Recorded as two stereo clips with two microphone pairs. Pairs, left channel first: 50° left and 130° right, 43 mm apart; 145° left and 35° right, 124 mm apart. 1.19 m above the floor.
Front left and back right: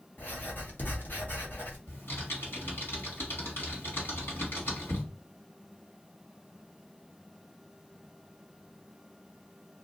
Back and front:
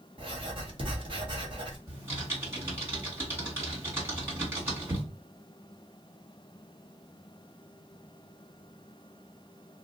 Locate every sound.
0.2 s writing: 10° left, 0.9 m
1.9 s typing on a keyboard: 40° left, 1.8 m